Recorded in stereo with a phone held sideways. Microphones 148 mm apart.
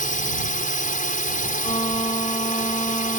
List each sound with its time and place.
0.0 s a drone: 65° left (ahead or behind)
1.6 s a violin: 35° left (ahead or behind)